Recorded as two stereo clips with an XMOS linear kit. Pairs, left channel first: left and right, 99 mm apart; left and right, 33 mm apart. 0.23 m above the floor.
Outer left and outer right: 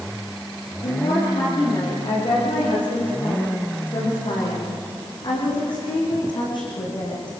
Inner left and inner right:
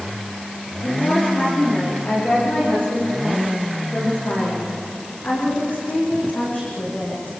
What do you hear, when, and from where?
0.8 s a woman speaking: 50° left (ahead or behind), 9.5 m; by 7.3 s 45° left (ahead or behind), 13.5 m